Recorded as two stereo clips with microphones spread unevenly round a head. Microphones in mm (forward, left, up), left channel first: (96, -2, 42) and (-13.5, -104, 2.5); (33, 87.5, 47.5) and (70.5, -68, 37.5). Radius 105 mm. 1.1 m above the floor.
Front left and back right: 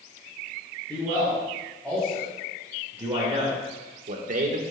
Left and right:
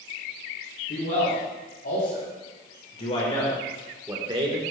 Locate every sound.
0.9 s a man speaking: 130° left, 4.5 m; by 4.6 s 120° right, 1.7 m